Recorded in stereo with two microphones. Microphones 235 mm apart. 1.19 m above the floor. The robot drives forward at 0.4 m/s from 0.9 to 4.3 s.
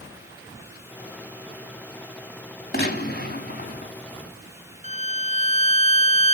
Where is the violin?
30° right (ahead or behind), 0.5 m.